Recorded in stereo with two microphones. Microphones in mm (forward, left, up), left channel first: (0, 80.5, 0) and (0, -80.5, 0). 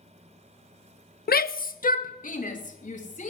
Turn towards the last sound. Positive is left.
turn(degrees=50)  # may be behind; listen again after turning